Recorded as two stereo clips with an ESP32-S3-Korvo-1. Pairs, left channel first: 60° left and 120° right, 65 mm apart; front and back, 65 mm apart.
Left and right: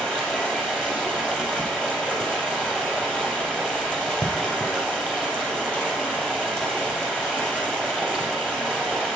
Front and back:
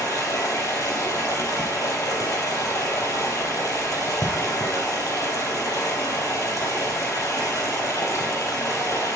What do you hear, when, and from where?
0.0 s running water: 15° right, 3 m